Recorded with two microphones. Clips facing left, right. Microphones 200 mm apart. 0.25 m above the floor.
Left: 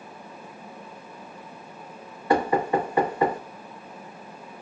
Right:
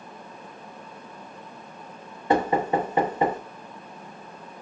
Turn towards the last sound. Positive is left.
turn(degrees=-25)  # may be behind; listen again after turning